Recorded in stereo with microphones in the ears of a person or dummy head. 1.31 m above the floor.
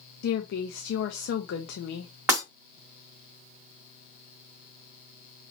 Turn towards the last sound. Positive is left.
turn(degrees=-15)  # may be behind; listen again after turning